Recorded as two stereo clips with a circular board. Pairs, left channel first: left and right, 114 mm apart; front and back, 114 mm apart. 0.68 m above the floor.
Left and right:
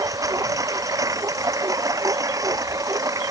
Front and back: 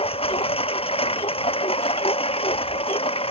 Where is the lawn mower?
30° right.